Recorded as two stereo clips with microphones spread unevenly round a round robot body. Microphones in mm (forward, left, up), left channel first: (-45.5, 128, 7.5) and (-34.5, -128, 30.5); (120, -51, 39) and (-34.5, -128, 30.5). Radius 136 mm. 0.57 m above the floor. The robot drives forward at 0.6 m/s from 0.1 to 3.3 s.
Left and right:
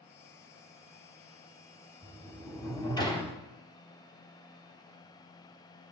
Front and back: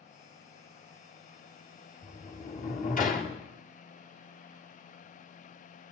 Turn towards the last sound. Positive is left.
turn(degrees=35)